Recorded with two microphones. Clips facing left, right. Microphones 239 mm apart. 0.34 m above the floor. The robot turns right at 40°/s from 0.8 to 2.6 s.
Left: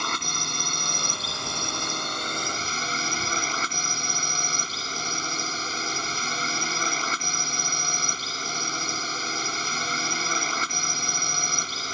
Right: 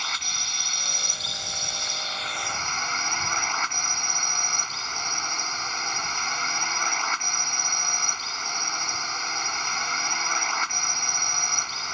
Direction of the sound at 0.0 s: 65° left.